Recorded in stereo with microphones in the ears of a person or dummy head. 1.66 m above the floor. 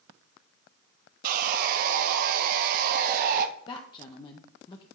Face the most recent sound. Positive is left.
turn(degrees=25)  # may be behind; listen again after turning